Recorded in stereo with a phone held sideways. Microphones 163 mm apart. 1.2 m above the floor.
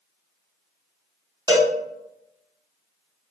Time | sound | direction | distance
1.5 | a cowbell | 25° right (ahead or behind) | 0.7 m